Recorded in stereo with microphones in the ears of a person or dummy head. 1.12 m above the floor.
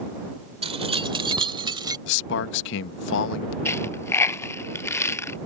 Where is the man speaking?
65° left (ahead or behind).